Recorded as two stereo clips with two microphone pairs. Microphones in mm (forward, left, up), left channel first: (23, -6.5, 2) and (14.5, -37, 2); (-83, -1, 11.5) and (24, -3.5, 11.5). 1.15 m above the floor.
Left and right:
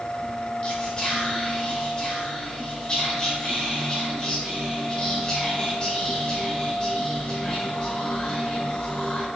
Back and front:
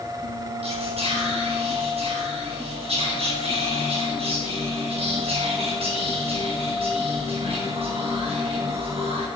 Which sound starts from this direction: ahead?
Whispering, at 0.6 s.